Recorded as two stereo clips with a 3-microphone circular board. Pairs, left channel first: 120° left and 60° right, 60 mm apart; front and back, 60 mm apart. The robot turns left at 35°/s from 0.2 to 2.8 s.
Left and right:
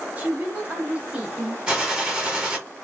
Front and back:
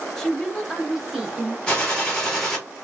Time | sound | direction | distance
0.2 | a woman speaking | 70° right | 0.9 m
1.7 | a gunshot | 35° right | 1.2 m